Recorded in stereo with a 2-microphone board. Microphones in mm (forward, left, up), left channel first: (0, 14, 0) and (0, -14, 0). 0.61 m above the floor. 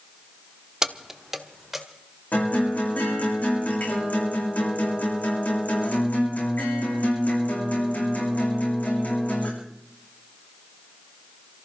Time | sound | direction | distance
0.8 | keys jangling | 20° right (ahead or behind) | 0.6 m
2.3 | a guitar | 85° left | 7.5 m